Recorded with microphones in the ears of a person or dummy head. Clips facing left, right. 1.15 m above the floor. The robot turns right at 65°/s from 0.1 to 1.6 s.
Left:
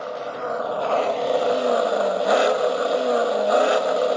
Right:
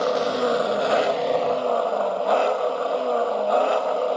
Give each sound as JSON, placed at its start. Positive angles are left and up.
{"t": 0.0, "sound": "an engine running", "azimuth_deg": -70, "distance_m": 0.7}